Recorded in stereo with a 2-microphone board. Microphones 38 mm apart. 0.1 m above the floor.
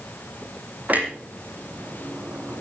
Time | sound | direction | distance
0.9 | a clunk | 40° right (ahead or behind) | 3.5 m